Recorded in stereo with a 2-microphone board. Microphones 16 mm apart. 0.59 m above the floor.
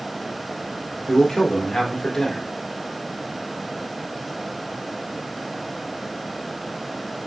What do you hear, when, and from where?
1.1 s a man speaking: 50° left (ahead or behind), 1.4 m